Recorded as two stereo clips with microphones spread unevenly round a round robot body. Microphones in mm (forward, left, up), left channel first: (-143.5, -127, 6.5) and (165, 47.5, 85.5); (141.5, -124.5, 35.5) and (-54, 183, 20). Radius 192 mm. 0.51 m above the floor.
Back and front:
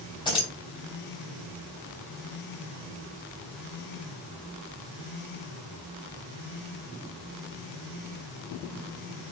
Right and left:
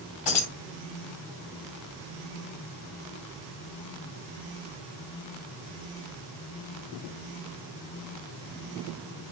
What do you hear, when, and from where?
0.2 s keys jangling: 75° right, 2 m